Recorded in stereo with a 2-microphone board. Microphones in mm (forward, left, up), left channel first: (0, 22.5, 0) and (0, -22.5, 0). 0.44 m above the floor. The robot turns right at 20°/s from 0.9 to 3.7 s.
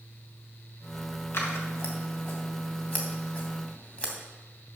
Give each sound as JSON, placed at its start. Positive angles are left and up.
{"t": 1.3, "sound": "scissors", "side_deg": 65, "distance_m": 2.5}